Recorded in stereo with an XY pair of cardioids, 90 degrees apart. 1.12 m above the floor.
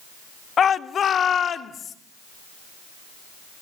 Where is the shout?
55° left, 1.5 m; by 1.9 s 60° left, 3.5 m.